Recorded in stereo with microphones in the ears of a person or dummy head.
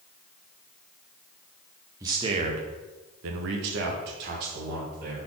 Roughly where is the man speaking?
Centre.